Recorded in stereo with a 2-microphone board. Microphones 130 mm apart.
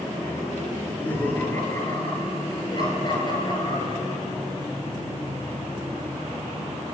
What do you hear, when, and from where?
0.8 s laughter: 10° left (ahead or behind), 6.5 m; by 4.2 s 40° left (ahead or behind), 9.5 m